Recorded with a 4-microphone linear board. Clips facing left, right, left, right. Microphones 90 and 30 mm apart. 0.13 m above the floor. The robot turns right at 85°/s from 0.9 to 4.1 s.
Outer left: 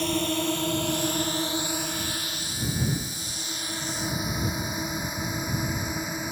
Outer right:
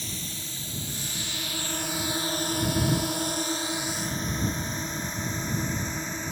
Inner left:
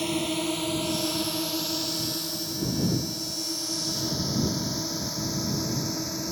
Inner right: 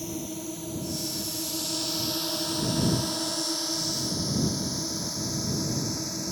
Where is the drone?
65° left (ahead or behind); by 6.3 s 10° left (ahead or behind).